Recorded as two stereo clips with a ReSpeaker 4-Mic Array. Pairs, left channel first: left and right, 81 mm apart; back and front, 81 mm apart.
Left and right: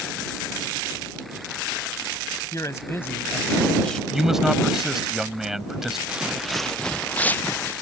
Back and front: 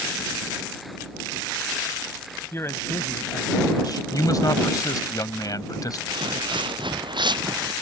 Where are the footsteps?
10° right; by 7.7 s 30° left.